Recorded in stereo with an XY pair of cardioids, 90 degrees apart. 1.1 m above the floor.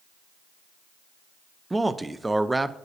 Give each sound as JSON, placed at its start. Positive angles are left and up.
{"t": 1.7, "sound": "a man speaking", "azimuth_deg": -15, "distance_m": 0.5}